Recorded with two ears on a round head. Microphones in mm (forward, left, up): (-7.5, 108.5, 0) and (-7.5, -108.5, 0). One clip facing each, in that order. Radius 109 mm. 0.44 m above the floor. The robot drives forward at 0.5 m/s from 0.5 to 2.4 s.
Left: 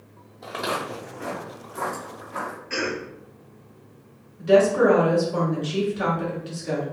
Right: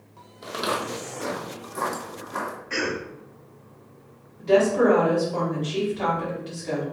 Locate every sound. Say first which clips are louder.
0.4 s footsteps: right 1 dB; 20° right (ahead or behind), 0.8 m; by 2.6 s 55° right (ahead or behind), 1.0 m
2.7 s a cough: even; 5° left (ahead or behind), 1.7 m
4.4 s a woman speaking: left 2 dB; 15° left (ahead or behind), 1.6 m